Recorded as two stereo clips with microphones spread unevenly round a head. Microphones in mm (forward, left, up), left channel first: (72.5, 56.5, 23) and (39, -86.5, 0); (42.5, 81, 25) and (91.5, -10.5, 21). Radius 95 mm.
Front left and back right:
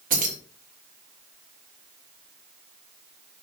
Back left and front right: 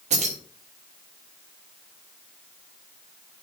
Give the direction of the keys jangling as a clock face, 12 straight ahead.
2 o'clock.